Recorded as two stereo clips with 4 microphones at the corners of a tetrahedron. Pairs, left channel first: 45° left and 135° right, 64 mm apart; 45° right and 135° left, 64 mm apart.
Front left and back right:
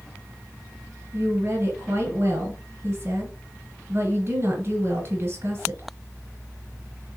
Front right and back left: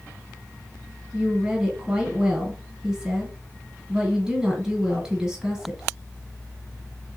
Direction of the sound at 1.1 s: 150° right.